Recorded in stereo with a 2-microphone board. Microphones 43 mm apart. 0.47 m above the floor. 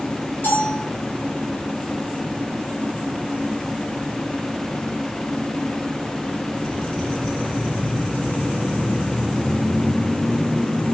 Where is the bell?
55° left (ahead or behind), 9.5 m.